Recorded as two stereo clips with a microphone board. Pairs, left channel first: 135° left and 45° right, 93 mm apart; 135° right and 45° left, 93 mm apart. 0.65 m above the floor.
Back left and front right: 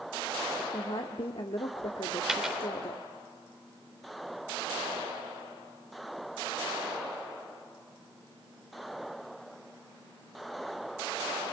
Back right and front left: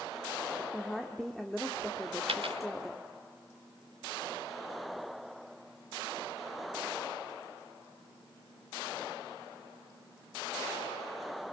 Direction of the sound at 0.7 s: 135° left.